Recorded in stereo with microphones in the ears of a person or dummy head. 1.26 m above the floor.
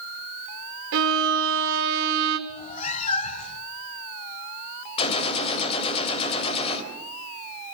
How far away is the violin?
About 2.5 m.